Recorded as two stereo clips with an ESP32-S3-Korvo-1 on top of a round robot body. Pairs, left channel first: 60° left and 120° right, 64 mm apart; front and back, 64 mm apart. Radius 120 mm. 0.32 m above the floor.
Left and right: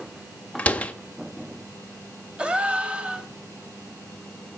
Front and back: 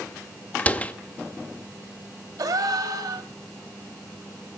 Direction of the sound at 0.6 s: 30° left.